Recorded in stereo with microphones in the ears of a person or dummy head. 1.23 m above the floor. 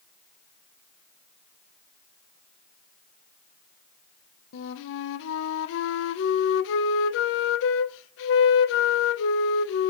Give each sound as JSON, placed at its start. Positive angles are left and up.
{"t": 4.5, "sound": "a flute", "side_deg": 70, "distance_m": 0.6}